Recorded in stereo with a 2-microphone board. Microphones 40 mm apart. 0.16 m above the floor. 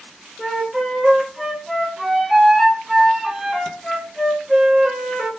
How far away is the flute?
About 1.4 m.